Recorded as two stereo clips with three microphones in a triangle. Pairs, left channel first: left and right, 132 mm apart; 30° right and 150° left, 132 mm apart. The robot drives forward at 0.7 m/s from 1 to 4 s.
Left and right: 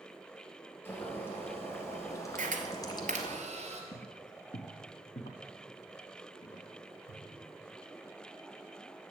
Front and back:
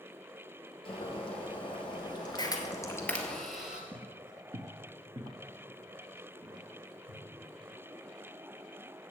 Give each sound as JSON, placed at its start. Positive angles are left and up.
{"t": 0.8, "sound": "boiling", "azimuth_deg": 15, "distance_m": 2.5}
{"t": 2.4, "sound": "a camera shutter", "azimuth_deg": -85, "distance_m": 1.3}
{"t": 3.9, "sound": "footsteps", "azimuth_deg": 100, "distance_m": 0.8}